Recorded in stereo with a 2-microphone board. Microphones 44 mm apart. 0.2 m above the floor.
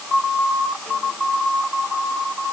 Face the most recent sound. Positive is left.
No sound to turn to.